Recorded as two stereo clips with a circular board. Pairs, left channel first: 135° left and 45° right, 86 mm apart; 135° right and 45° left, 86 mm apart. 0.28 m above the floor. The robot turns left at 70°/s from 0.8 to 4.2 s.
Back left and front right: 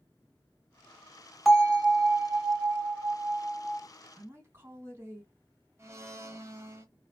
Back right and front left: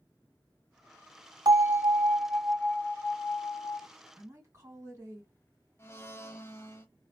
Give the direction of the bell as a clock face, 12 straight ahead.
11 o'clock.